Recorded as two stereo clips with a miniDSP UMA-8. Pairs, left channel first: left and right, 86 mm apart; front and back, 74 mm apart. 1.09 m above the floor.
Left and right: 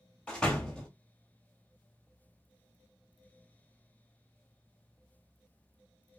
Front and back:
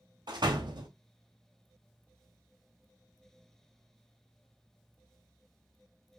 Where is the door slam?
170° left, 0.9 m.